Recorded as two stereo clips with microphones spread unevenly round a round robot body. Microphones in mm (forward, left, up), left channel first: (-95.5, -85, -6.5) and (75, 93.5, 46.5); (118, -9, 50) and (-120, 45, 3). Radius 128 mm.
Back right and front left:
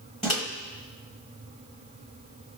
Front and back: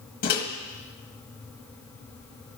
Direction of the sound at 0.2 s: 60° right.